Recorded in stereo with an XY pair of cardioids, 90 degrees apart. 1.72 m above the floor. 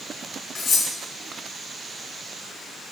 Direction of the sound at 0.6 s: 60° left.